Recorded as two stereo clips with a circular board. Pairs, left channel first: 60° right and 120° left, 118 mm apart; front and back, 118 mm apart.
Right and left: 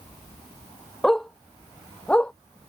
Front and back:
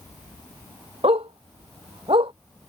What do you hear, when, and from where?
1.0 s a dog barking: 145° right; by 2.3 s 140° right